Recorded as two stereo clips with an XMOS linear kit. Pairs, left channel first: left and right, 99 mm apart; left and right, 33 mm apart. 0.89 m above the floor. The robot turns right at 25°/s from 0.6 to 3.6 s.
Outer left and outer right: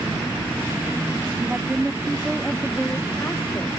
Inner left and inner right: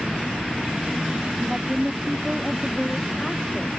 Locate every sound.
1.4 s a woman speaking: 25° right; by 3.8 s 35° left